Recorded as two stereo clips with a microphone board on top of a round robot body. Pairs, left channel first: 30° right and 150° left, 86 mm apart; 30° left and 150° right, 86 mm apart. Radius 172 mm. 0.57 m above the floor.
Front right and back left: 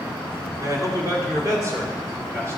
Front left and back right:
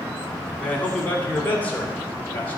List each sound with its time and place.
0.6 s a man speaking: 100° left, 1.8 m; by 2.6 s 95° left, 3.5 m